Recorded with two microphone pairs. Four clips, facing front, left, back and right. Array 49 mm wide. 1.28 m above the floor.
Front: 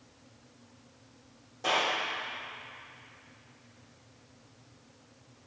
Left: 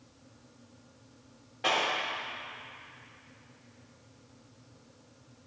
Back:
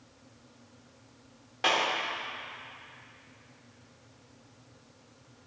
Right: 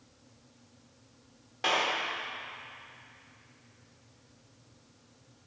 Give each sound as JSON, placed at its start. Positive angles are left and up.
{"t": 1.6, "sound": "a clap", "azimuth_deg": -160, "distance_m": 3.5}